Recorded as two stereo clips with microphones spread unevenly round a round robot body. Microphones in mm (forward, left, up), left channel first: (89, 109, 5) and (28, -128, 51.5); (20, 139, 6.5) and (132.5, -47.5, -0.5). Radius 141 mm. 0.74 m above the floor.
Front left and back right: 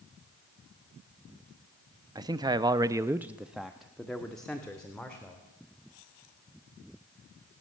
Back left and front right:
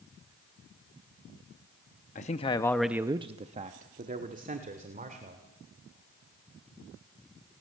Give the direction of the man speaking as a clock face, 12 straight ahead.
6 o'clock.